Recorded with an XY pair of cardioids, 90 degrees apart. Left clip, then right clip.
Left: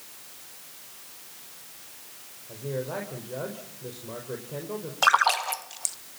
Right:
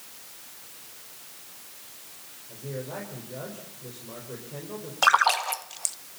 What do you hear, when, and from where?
2.5 s a man speaking: 45° left, 5 m
5.0 s a splash: 5° right, 1.1 m